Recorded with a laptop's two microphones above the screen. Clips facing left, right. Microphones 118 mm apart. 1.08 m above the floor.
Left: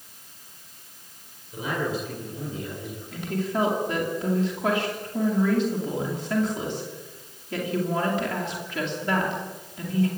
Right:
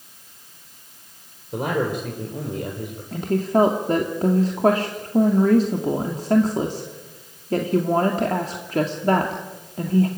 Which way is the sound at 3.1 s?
40° right (ahead or behind).